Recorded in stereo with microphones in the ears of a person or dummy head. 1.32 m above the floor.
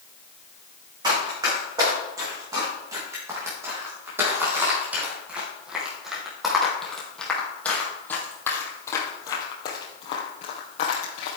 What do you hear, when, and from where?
1.0 s running footsteps: 25° right (ahead or behind), 5.5 m; by 11.4 s 50° left (ahead or behind), 3 m